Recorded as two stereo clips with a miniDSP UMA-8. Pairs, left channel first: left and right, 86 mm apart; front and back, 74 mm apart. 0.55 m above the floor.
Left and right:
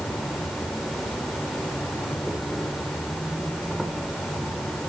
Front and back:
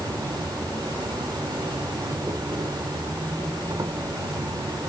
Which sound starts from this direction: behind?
An insect, at 0.0 s.